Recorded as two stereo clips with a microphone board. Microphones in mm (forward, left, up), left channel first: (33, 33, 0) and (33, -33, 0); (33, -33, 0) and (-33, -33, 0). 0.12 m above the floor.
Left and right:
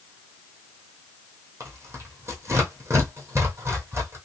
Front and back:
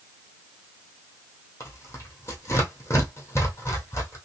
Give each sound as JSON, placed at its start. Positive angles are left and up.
{"t": 1.6, "sound": "tearing paper", "azimuth_deg": -45, "distance_m": 1.6}